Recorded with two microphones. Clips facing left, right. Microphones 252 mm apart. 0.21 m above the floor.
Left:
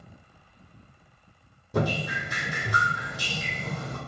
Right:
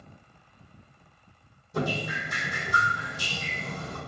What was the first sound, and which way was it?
Dripping, 75° left (ahead or behind).